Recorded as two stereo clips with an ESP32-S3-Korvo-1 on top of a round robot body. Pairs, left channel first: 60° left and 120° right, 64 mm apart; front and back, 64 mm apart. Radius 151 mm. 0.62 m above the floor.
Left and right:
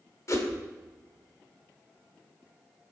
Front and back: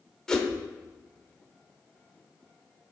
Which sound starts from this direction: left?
A whoosh, at 0.3 s.